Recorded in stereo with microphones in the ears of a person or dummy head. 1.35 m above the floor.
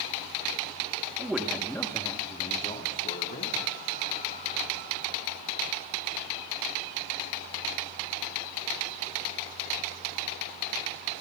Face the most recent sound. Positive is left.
turn(degrees=65)  # may be behind; listen again after turning